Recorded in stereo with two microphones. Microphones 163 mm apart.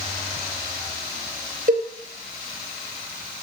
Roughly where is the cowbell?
Right.